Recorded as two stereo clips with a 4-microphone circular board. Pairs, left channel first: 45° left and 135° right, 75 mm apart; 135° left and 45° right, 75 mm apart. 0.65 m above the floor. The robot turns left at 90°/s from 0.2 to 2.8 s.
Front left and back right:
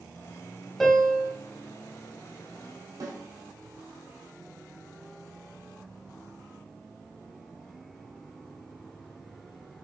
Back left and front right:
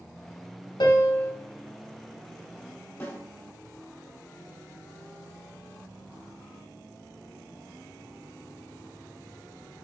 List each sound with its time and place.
0.8 s a piano: 135° left, 0.9 m; by 1.3 s 85° left, 0.9 m
3.0 s a snare drum: 165° right, 1.5 m